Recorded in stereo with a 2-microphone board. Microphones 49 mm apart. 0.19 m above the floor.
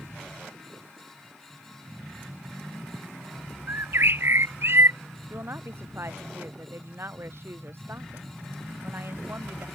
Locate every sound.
3.7 s a bird: 60° right (ahead or behind)
5.3 s a woman speaking: 55° right (ahead or behind)